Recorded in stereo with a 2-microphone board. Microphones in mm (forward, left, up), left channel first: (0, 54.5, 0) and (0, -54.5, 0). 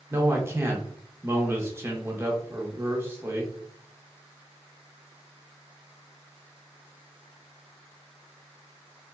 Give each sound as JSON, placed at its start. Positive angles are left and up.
{"t": 0.1, "sound": "a man speaking", "side_deg": -20, "distance_m": 0.8}